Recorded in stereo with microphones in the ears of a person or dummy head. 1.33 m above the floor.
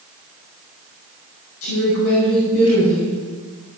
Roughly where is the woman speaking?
Left.